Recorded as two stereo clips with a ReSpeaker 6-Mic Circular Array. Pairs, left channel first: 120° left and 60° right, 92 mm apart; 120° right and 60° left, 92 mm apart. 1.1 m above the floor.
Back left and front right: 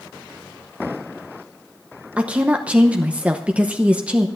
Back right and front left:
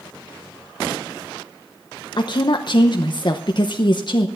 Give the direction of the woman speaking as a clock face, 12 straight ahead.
4 o'clock.